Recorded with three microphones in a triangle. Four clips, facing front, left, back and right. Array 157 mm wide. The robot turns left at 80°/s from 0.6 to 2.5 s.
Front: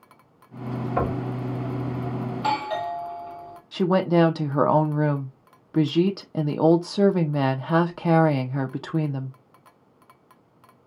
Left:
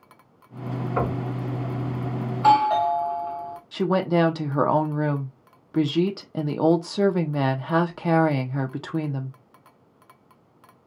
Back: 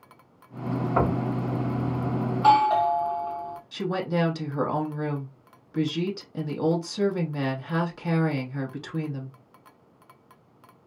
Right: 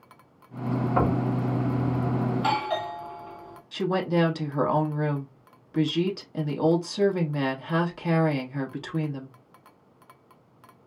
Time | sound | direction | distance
1.0 | knocking | 150° right | 1.8 m
2.3 | a doorbell | 135° left | 1.3 m
3.7 | a woman speaking | 30° left | 0.8 m